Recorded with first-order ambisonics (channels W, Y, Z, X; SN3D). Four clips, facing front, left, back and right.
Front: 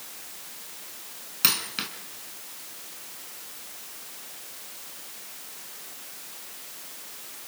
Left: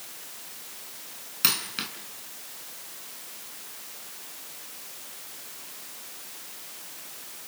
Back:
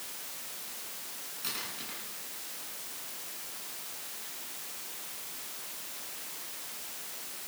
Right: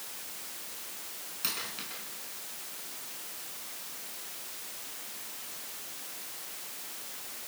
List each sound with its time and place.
1.4 s a dropped coin: 35° left, 3.5 m